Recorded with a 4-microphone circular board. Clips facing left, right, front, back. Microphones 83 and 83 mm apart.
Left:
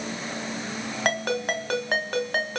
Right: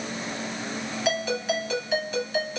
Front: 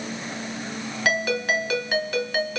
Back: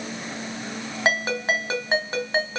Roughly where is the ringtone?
Behind left.